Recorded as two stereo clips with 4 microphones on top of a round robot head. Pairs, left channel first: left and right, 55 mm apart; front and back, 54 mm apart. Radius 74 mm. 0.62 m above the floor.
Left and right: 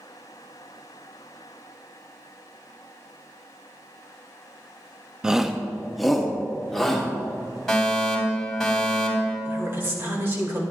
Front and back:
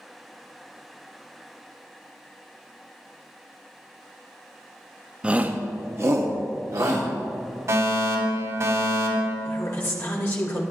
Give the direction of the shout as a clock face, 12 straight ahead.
5 o'clock.